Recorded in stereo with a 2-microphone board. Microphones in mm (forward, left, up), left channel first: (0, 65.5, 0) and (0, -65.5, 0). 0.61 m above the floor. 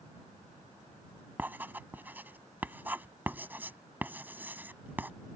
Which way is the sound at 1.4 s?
15° right (ahead or behind).